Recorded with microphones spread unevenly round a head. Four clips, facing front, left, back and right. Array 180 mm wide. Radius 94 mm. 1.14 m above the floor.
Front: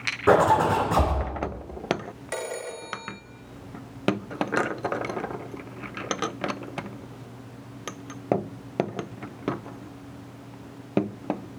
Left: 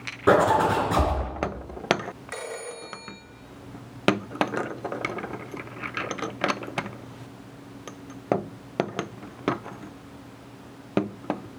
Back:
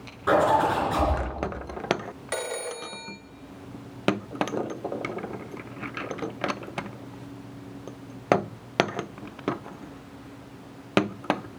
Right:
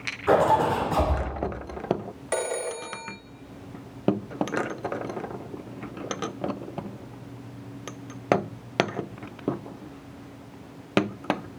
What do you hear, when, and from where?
0.3 s a zipper: 55° left, 5 m
2.3 s a phone ringing: 90° right, 1.6 m